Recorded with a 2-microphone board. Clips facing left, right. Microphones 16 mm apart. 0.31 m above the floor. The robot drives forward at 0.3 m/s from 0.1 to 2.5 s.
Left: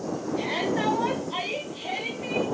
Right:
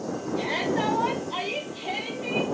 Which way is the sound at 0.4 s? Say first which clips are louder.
Right 1 dB; 5° right (ahead or behind).